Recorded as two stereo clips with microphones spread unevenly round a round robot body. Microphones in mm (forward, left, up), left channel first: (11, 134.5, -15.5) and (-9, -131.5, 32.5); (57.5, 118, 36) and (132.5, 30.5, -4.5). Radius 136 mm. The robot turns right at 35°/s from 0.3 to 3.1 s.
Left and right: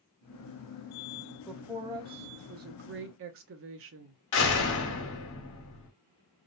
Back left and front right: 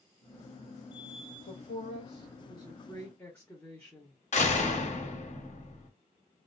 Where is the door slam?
105° left, 1.3 m.